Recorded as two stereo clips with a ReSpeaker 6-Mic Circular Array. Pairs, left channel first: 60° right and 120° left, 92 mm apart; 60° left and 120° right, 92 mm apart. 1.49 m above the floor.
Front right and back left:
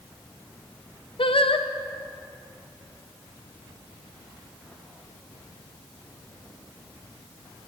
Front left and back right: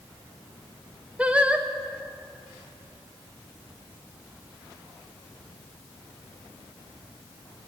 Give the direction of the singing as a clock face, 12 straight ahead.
1 o'clock.